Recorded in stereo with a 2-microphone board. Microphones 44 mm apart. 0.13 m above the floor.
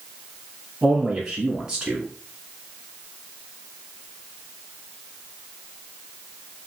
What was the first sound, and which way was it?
A man speaking, 15° right (ahead or behind).